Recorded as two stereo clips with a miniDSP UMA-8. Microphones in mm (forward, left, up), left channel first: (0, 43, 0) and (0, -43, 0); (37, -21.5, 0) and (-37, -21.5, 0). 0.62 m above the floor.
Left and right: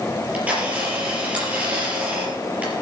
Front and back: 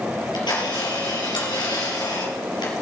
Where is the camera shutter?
15° right, 5 m.